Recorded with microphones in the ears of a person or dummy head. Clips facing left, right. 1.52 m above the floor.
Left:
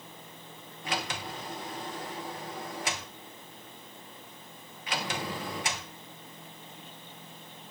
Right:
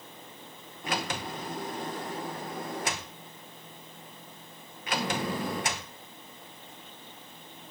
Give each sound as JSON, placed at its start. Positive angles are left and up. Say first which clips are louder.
{"t": 0.8, "sound": "a sliding door", "louder": "right 2 dB", "side_deg": -50, "distance_m": 0.9}